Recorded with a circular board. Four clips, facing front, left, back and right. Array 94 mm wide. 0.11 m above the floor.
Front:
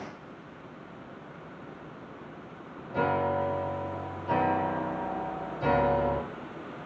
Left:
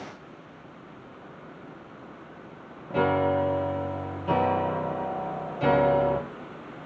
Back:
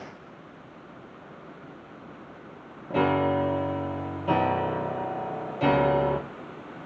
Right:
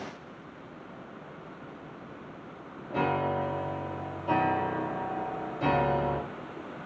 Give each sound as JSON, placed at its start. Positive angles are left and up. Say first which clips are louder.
{"t": 2.9, "sound": "a piano", "louder": "left 5 dB, back 4 dB", "azimuth_deg": 160, "distance_m": 0.7}